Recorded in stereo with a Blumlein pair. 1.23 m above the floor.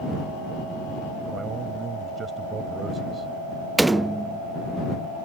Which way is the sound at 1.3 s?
20° right.